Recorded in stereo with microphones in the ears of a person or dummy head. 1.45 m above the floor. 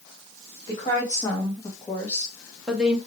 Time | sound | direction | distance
0.7 | a woman speaking | 25° left (ahead or behind) | 1.9 m